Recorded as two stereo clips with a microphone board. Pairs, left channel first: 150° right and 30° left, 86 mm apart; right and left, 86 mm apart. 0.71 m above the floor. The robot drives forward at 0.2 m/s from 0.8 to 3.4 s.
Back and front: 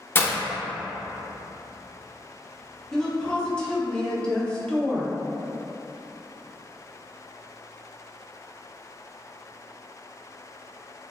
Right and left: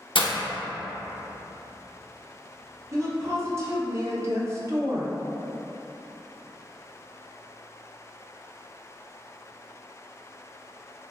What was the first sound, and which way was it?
Breaking glass, 85° right.